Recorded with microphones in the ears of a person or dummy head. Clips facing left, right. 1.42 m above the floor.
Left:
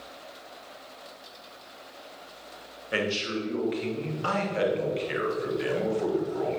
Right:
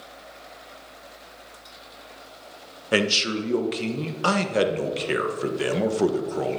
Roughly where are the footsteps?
No footsteps in this recording.